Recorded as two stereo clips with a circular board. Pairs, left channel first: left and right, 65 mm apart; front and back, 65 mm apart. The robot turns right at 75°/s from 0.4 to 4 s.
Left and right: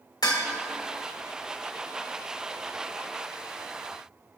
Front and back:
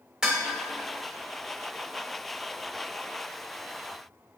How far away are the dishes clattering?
About 1.5 m.